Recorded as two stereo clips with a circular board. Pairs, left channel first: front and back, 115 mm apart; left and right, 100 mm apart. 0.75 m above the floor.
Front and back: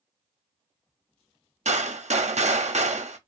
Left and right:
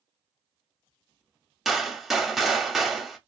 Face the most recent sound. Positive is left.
turn(degrees=180)